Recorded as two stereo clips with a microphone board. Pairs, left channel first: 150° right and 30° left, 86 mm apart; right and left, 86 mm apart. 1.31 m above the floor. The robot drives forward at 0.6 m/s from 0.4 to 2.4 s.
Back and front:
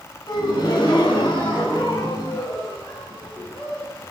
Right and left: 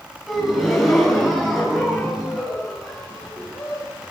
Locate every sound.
0.3 s a gasp: straight behind, 4 m